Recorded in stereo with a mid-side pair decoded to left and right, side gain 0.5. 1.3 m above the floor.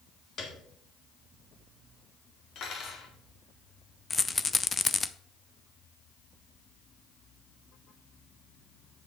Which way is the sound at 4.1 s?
20° left.